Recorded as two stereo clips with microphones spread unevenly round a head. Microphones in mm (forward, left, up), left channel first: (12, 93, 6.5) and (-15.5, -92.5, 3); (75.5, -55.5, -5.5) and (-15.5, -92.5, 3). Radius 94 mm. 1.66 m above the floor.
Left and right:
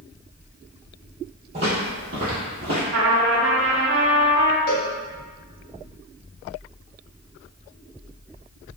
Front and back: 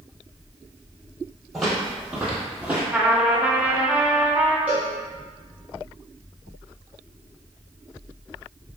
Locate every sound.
1.5 s footsteps: 75° right, 2.0 m; by 2.8 s 85° right, 2.5 m
2.9 s a trumpet: 80° right, 0.7 m
4.7 s a cowbell: 125° left, 0.9 m